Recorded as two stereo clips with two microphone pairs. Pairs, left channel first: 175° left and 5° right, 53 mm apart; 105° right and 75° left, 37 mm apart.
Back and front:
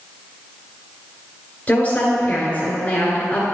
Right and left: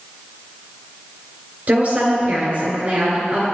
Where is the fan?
No fan in this recording.